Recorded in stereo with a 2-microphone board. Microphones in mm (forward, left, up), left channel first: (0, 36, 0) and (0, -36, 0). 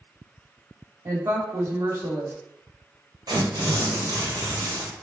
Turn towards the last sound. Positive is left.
turn(degrees=-75)  # may be behind; listen again after turning